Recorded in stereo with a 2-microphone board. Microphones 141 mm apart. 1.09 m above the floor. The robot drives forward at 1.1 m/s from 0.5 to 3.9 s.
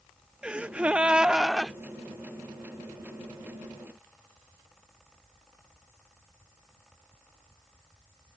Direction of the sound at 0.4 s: 10° right (ahead or behind).